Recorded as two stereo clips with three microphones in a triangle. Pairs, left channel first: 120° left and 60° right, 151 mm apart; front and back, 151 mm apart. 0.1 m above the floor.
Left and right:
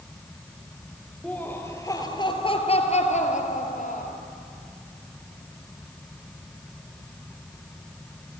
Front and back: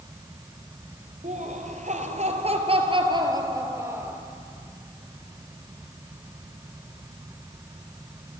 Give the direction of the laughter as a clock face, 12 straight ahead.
5 o'clock.